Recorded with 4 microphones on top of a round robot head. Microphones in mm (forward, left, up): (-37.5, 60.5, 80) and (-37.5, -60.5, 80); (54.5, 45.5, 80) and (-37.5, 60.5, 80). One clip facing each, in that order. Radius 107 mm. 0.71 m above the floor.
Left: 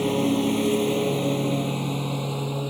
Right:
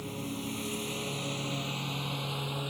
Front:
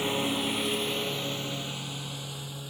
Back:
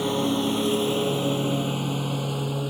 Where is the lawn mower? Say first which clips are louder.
Left 16 dB, back 6 dB; 105° left; by 2.7 s 140° left.